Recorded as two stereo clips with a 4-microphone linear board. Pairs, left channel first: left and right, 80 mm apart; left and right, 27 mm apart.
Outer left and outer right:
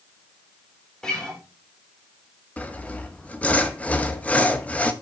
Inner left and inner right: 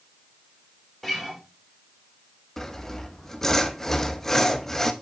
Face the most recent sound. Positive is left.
turn(degrees=15)  # may be behind; listen again after turning